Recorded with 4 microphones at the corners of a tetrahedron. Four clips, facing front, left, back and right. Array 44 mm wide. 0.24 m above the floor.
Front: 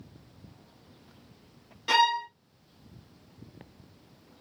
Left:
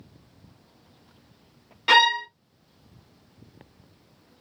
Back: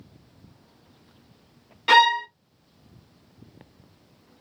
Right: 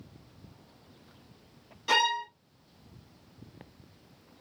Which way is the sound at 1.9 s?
130° left.